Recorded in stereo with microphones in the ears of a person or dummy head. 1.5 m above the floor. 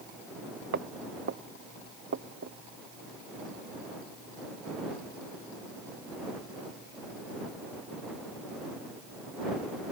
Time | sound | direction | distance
0.7 | footsteps | 55° right (ahead or behind) | ?